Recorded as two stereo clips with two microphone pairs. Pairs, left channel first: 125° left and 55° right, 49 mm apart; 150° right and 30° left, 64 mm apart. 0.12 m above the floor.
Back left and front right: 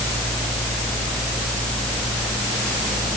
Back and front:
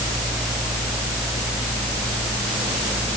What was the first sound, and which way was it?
Only background noise.